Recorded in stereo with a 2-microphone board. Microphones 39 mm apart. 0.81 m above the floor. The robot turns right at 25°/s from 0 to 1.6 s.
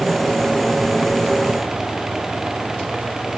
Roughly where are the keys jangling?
No keys jangling in this recording.